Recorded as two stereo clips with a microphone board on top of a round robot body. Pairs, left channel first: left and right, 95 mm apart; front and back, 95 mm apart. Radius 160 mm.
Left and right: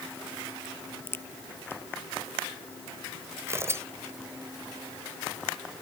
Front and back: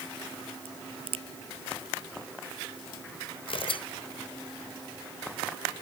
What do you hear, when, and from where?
0.7 s a crack: 155° left
3.5 s tearing paper: 25° right